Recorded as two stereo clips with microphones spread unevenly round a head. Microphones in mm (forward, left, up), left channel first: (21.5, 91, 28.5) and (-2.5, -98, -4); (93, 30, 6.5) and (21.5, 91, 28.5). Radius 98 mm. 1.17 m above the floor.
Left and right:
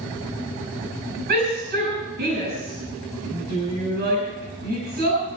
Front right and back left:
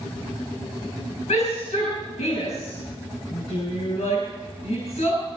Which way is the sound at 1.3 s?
55° right.